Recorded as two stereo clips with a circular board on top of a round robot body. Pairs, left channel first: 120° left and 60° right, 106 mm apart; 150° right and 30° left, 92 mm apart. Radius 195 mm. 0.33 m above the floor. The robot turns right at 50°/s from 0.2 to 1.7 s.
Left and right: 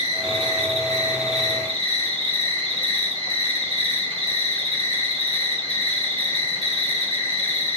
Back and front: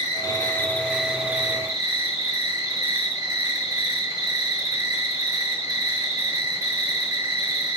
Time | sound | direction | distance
0.0 | an insect | 95° right | 6.5 m